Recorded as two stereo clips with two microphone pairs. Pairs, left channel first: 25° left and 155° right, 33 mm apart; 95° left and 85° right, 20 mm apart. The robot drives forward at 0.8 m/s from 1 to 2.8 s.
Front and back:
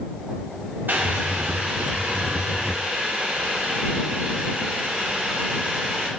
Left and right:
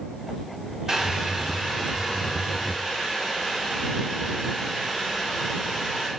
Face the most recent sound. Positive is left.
turn(degrees=-170)